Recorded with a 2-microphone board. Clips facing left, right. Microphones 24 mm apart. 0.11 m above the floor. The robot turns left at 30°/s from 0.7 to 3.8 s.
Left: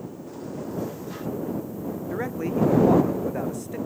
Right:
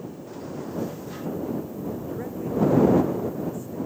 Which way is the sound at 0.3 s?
15° right (ahead or behind).